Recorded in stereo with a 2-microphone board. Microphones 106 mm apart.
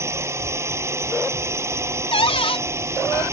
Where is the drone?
25° right (ahead or behind).